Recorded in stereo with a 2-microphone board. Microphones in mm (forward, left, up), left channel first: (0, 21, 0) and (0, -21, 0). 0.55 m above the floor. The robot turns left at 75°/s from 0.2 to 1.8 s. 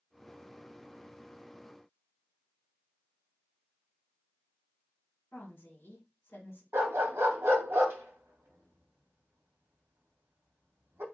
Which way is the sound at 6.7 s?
85° right.